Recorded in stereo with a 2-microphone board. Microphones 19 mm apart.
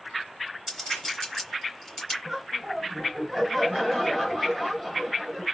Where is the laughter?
Centre (ahead or behind), 1.8 m.